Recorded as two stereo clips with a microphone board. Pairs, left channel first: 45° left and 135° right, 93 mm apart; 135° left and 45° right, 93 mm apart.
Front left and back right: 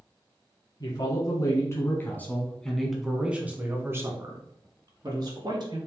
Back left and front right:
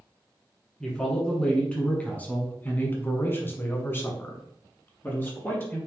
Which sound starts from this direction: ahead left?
A man speaking, at 0.8 s.